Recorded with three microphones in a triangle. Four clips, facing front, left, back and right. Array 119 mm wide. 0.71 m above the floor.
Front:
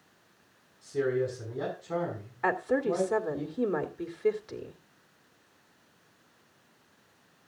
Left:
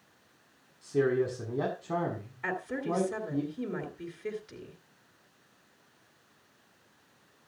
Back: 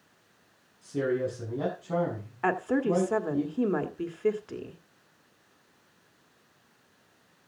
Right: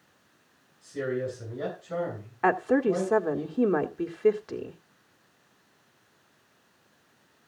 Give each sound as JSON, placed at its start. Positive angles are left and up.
{"t": 0.8, "sound": "a man speaking", "azimuth_deg": 105, "distance_m": 6.5}
{"t": 2.4, "sound": "a woman speaking", "azimuth_deg": -100, "distance_m": 1.7}